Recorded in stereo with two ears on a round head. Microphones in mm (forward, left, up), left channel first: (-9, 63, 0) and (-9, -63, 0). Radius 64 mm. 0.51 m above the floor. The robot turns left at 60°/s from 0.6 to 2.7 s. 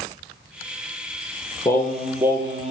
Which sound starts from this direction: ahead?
Singing, at 1.6 s.